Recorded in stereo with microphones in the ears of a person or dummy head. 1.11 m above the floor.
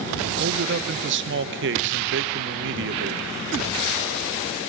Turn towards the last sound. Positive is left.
turn(degrees=-60)  # may be behind; listen again after turning